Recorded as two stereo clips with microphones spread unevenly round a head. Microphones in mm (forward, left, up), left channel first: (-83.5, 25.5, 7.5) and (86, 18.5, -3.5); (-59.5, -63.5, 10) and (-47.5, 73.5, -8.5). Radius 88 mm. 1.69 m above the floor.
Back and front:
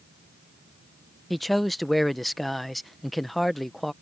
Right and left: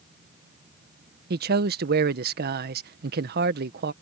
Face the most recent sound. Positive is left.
turn(degrees=90)